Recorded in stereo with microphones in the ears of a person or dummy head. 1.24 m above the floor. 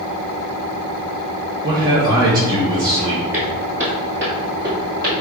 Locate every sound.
1.6 s a man speaking: 25° right (ahead or behind), 1.0 m
3.3 s footsteps: 10° right (ahead or behind), 1.3 m; by 5.1 s 20° right (ahead or behind), 2 m